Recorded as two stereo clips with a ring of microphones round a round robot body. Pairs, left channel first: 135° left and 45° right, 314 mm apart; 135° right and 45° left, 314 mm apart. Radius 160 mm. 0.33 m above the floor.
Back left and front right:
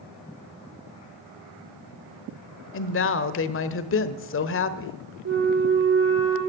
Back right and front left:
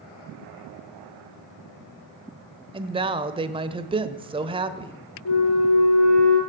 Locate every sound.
2.7 s a woman speaking: 110° left, 1.1 m
5.2 s a flute: 100° right, 5 m